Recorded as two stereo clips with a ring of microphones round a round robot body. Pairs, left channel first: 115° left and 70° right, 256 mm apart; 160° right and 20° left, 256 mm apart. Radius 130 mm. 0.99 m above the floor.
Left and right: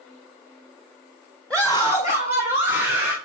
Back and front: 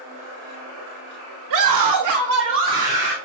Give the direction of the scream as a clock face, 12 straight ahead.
11 o'clock.